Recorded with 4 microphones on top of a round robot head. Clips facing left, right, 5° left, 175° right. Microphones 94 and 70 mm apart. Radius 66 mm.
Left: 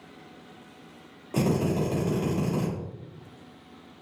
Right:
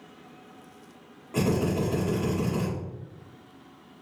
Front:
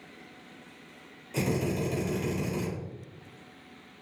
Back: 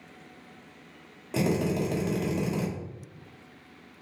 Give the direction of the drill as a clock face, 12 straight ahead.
7 o'clock.